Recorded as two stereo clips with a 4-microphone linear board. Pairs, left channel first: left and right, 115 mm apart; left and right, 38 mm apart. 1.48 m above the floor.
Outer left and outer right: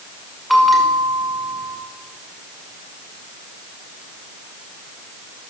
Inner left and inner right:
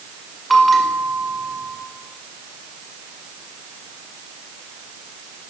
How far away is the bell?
About 5.5 m.